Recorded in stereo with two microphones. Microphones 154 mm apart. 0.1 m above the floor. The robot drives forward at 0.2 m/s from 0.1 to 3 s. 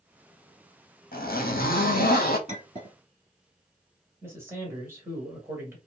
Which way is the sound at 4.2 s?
15° right (ahead or behind).